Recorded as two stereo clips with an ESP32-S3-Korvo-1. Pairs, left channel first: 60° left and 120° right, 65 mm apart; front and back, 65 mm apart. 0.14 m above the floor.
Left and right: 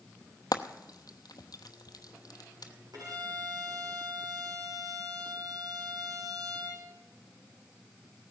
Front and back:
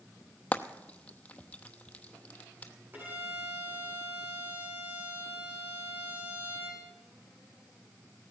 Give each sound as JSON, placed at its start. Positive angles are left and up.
{"t": 0.5, "sound": "frying", "azimuth_deg": 70, "distance_m": 0.9}
{"t": 2.9, "sound": "a violin", "azimuth_deg": -120, "distance_m": 7.0}